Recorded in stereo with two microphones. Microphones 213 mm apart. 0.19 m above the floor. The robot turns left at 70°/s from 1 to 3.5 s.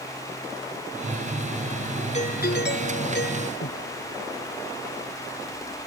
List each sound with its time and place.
2.1 s a doorbell: 145° left; by 3.5 s 50° left
3.6 s breathing: 65° left (ahead or behind)